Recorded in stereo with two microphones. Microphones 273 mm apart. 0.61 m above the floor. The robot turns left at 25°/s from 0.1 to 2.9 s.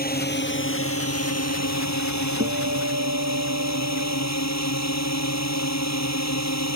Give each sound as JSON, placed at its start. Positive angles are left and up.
{"t": 0.0, "sound": "a drone", "azimuth_deg": 145}
{"t": 2.4, "sound": "a guitar", "side_deg": -55}